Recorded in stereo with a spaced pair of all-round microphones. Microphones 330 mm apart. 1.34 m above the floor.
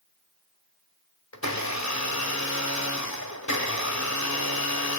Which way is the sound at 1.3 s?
55° left (ahead or behind).